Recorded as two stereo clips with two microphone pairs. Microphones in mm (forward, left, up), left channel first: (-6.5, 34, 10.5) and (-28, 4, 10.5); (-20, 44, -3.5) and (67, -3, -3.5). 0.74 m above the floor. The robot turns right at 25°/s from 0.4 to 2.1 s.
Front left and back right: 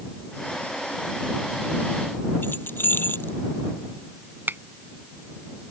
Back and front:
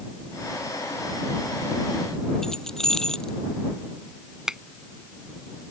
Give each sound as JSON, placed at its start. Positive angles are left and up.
{"t": 2.4, "sound": "keys jangling", "azimuth_deg": 65}
{"t": 4.5, "sound": "a finger snap", "azimuth_deg": -110}